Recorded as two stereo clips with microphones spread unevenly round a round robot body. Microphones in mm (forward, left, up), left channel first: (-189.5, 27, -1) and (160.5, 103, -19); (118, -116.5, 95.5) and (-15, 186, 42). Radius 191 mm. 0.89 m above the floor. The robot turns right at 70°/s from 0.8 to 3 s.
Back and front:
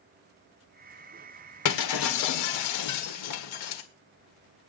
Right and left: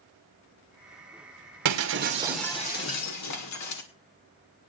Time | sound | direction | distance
1.6 | breaking glass | 150° left | 2 m